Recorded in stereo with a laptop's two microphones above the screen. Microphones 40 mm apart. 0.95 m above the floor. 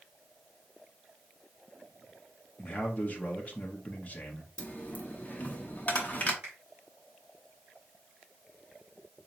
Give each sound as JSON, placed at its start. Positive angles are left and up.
{"t": 2.6, "sound": "a man speaking", "side_deg": 35, "distance_m": 0.7}
{"t": 4.6, "sound": "a dropped coin", "side_deg": 40, "distance_m": 0.7}
{"t": 6.4, "sound": "a finger snap", "side_deg": -40, "distance_m": 1.8}